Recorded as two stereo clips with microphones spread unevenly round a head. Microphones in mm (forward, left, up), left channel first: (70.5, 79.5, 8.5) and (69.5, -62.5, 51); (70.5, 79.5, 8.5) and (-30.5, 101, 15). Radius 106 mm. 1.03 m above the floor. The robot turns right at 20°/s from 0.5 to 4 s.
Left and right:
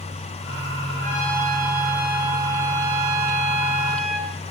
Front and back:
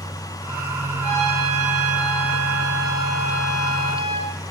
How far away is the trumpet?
About 9 m.